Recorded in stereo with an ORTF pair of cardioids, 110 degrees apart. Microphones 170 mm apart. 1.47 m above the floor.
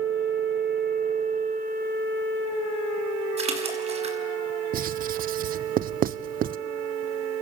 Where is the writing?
60° right, 0.9 m.